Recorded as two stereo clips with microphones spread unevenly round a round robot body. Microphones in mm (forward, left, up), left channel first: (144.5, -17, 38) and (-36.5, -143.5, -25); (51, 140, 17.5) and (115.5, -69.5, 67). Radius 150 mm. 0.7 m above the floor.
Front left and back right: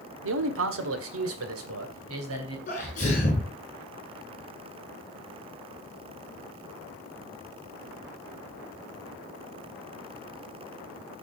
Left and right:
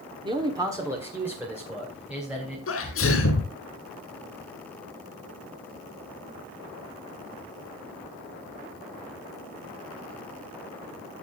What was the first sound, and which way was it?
A man speaking, 150° right.